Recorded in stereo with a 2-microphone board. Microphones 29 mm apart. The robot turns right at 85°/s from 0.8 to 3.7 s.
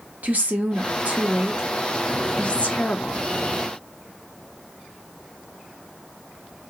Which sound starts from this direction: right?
A woman speaking, at 0.2 s.